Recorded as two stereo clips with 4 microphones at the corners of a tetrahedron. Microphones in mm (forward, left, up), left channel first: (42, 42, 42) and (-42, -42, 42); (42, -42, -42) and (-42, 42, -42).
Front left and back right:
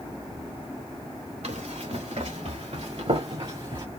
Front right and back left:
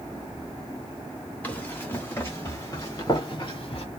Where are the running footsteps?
120° right, 2 m; by 3.9 s 85° right, 1.3 m.